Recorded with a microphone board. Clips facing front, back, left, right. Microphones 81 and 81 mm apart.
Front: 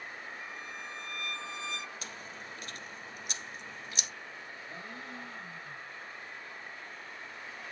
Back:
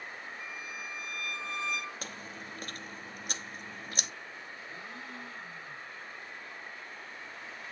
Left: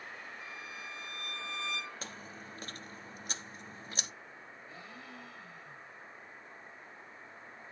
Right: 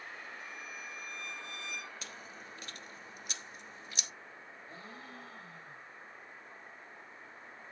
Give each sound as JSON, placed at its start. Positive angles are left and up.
{"t": 0.4, "sound": "a violin", "azimuth_deg": -65, "distance_m": 4.5}
{"t": 2.0, "sound": "chewing", "azimuth_deg": 140, "distance_m": 0.9}
{"t": 4.7, "sound": "a gasp", "azimuth_deg": -45, "distance_m": 3.0}